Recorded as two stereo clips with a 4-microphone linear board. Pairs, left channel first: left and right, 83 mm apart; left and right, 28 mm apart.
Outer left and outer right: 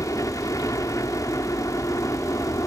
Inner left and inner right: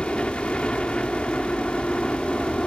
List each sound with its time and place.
0.0 s a helicopter: 40° left (ahead or behind)